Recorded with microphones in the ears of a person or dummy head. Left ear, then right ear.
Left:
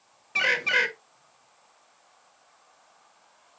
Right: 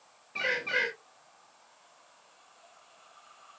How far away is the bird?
About 1.1 m.